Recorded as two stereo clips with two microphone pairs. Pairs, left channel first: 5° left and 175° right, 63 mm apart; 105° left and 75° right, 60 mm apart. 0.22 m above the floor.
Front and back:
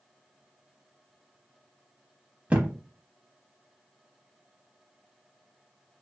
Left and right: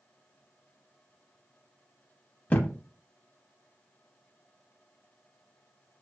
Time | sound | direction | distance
2.5 | a thud | 140° left | 0.6 m